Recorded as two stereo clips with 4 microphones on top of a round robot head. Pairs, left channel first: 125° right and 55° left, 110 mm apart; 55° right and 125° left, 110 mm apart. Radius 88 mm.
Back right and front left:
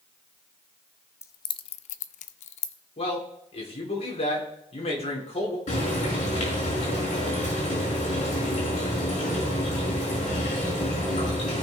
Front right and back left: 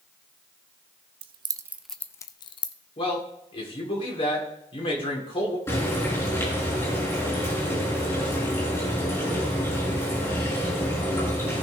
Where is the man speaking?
95° right, 3.5 m.